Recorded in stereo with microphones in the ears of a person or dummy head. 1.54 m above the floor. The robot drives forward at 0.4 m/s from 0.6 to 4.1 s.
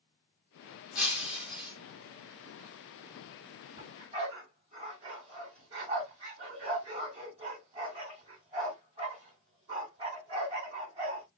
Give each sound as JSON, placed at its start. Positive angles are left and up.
{"t": 0.9, "sound": "breaking glass", "side_deg": -5, "distance_m": 1.5}
{"t": 3.8, "sound": "a dog barking", "side_deg": -30, "distance_m": 2.5}